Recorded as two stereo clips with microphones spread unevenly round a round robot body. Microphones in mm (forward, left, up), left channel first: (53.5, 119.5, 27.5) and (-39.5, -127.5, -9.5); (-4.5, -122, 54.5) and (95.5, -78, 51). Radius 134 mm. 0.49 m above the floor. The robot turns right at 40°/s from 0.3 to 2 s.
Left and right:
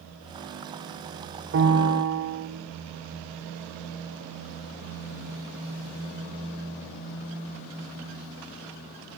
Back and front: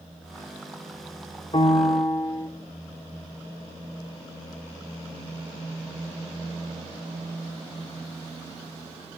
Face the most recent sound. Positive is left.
turn(degrees=-110)